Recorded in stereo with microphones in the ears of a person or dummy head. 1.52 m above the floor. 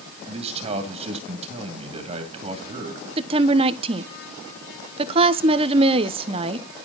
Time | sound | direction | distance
0.3 | a man speaking | 40° right (ahead or behind) | 2 m
3.2 | a woman speaking | 40° right (ahead or behind) | 0.9 m